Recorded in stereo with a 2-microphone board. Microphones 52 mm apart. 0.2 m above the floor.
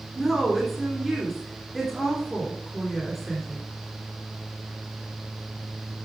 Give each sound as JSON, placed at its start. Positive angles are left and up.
{"t": 0.1, "sound": "a woman speaking", "side_deg": 0, "distance_m": 2.5}